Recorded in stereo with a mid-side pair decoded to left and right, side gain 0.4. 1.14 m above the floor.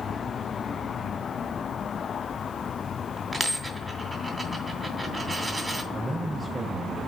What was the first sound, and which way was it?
A dropped coin, 25° right.